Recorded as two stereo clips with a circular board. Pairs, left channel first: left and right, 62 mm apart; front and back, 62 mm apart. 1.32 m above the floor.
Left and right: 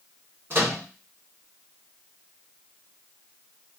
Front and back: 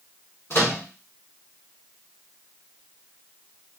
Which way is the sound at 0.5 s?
35° right.